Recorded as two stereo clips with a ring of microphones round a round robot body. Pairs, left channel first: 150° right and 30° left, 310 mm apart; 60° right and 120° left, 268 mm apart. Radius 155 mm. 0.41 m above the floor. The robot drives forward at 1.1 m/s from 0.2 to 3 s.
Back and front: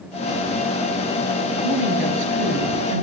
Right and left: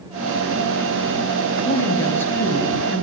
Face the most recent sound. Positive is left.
turn(degrees=25)